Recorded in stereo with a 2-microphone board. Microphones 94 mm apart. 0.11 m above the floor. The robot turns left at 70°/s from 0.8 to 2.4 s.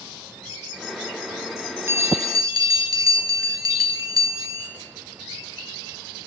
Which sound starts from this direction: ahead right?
A bell, at 1.9 s.